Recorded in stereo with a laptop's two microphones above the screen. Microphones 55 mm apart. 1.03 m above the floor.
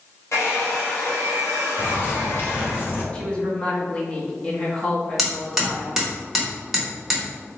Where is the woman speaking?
25° left (ahead or behind), 0.9 m.